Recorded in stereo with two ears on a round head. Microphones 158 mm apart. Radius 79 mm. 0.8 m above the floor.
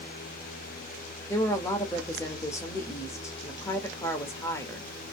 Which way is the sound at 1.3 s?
15° left (ahead or behind).